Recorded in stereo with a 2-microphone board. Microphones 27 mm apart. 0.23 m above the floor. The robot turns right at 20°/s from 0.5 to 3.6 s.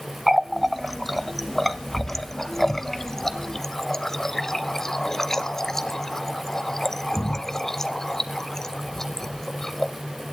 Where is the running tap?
5° right (ahead or behind), 0.6 m; by 9.9 s 15° left (ahead or behind), 0.6 m.